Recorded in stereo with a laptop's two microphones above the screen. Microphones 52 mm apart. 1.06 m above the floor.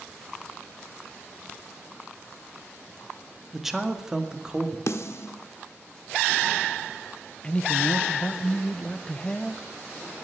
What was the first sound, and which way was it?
A man speaking, 5° right (ahead or behind).